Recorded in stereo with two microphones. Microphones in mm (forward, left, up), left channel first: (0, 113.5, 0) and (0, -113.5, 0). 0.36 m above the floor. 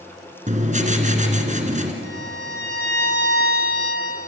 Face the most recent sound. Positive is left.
turn(degrees=-55)  # may be behind; listen again after turning